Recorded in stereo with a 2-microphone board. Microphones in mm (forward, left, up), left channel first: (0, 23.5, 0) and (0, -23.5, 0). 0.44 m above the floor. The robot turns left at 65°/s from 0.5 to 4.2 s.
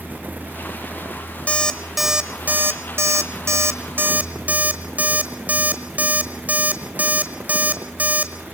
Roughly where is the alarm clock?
Left.